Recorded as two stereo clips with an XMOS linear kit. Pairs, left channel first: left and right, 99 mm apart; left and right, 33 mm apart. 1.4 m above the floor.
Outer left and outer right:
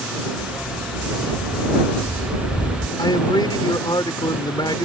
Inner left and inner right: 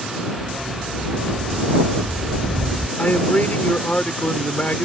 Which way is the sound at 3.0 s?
50° left (ahead or behind).